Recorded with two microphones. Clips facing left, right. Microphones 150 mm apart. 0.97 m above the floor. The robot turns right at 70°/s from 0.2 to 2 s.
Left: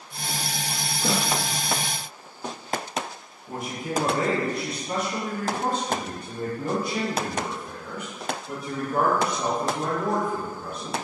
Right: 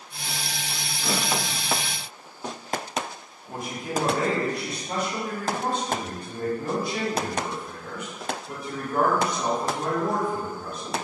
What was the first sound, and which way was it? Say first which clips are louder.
A snare drum: left 2 dB; 75° left (ahead or behind).